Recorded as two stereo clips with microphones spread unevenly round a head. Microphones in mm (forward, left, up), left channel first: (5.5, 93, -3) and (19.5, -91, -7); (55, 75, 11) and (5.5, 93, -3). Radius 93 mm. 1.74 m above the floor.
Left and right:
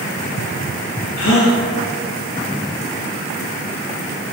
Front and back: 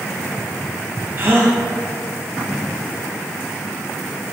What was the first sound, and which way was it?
A gasp, 110° left.